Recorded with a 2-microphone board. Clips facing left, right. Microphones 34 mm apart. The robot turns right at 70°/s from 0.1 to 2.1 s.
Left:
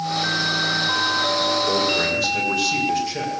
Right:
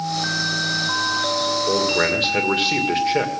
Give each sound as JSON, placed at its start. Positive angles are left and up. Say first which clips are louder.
{"t": 1.7, "sound": "a man speaking", "louder": "right 1 dB", "azimuth_deg": -170, "distance_m": 2.0}